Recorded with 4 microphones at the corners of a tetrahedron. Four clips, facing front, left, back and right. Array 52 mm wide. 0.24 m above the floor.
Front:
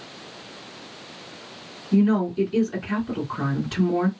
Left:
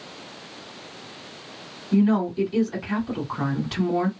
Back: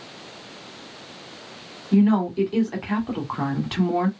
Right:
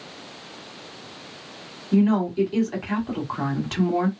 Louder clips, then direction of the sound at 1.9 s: Right 1 dB, back 1 dB; 160° right.